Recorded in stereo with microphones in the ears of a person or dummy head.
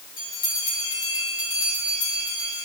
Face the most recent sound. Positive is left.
turn(degrees=25)  # may be behind; listen again after turning